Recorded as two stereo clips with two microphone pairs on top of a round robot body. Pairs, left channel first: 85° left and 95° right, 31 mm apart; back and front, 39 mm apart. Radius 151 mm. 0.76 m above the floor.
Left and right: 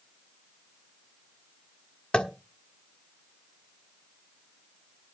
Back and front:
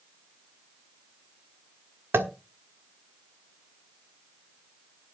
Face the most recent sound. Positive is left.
turn(degrees=20)